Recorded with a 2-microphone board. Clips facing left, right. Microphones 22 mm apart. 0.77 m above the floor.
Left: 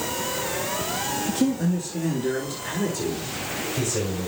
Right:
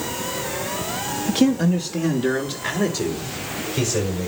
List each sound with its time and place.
1.3 s a man speaking: 50° right (ahead or behind), 0.7 m; by 4.3 s 40° right (ahead or behind), 3 m